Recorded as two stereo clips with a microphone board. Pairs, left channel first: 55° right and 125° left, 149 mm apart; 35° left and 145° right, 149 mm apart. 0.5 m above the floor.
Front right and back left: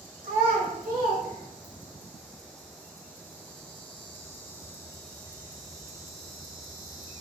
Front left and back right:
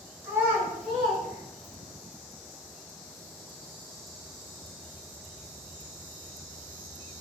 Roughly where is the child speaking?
Behind left.